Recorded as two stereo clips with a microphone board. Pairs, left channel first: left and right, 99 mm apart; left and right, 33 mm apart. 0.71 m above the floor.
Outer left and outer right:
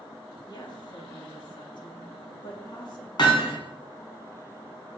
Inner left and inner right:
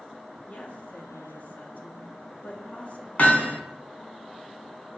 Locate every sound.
0.5 s a woman speaking: 45° left (ahead or behind), 1.4 m
3.2 s hammering: 50° left (ahead or behind), 2.5 m